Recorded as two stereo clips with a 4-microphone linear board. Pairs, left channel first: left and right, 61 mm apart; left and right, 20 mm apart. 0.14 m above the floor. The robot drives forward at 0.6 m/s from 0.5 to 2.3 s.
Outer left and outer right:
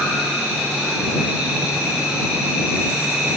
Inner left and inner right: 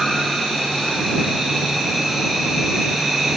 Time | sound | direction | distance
0.0 | an insect | 15° right (ahead or behind) | 6 m